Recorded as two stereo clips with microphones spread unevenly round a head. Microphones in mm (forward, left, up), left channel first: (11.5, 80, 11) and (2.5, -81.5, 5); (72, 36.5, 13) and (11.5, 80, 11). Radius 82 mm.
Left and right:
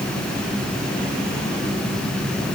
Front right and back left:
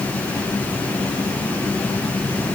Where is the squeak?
I don't hear a squeak.